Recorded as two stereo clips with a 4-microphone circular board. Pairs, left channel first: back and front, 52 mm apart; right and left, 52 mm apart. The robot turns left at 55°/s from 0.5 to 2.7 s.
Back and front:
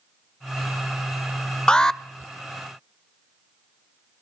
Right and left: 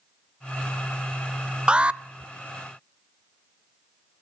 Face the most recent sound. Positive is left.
turn(degrees=75)